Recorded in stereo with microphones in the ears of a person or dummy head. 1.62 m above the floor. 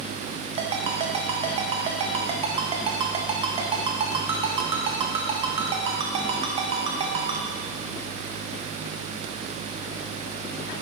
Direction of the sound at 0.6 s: 35° right (ahead or behind).